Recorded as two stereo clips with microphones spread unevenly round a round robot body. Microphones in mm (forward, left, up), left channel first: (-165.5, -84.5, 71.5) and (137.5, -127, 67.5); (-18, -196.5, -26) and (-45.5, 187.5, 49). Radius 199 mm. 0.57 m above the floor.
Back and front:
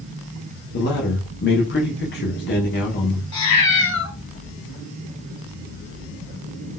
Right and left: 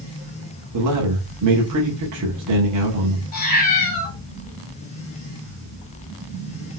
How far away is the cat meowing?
About 2 m.